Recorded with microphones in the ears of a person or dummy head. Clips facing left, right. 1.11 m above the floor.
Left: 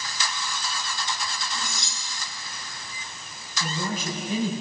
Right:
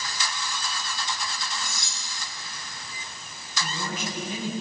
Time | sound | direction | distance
1.5 | cutlery clinking | 30° left (ahead or behind) | 10 m
3.6 | a man speaking | 80° left | 7.5 m